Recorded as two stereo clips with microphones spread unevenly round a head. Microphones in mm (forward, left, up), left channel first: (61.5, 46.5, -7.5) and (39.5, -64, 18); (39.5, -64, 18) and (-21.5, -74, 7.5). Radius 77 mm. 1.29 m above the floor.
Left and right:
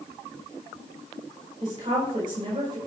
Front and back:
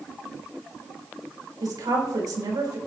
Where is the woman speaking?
160° right, 4.5 m.